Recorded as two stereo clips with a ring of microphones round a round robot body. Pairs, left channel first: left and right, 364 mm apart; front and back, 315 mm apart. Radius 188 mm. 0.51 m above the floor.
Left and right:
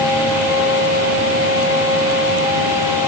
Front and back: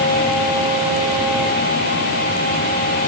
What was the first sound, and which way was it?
Only background noise.